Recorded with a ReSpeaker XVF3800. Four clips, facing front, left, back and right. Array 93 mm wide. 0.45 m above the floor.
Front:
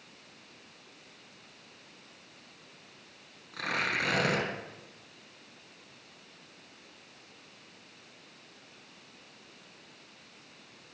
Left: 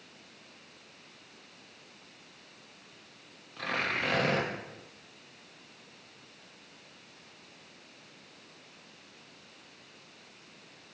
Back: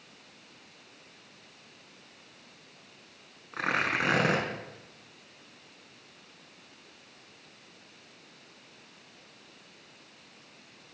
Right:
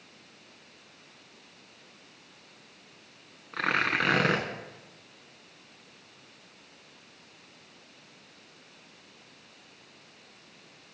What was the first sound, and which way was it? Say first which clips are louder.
Tearing paper: right 6 dB, back 3 dB; 120° right.